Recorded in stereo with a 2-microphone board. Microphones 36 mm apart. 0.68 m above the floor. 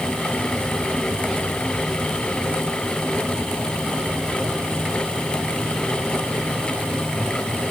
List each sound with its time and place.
Only background noise.